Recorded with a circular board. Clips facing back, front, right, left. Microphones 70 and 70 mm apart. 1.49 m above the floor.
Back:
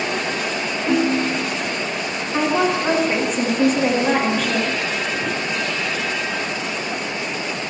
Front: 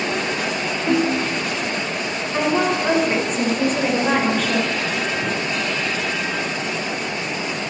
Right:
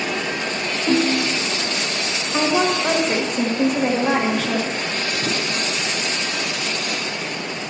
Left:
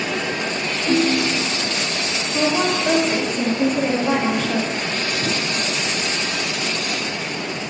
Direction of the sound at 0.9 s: 95° right.